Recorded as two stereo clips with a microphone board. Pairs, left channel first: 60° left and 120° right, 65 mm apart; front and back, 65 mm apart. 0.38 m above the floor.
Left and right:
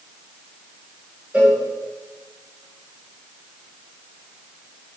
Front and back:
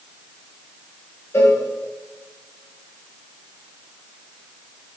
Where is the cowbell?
55° right, 4 m.